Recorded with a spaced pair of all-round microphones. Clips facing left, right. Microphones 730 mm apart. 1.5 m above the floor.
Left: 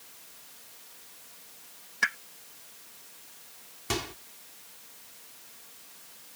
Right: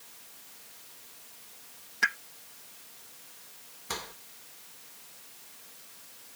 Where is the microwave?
85° left.